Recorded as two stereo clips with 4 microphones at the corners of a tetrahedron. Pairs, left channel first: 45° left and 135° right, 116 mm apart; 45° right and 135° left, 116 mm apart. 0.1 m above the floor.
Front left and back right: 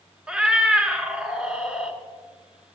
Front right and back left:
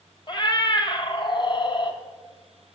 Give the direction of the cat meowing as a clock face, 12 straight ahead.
2 o'clock.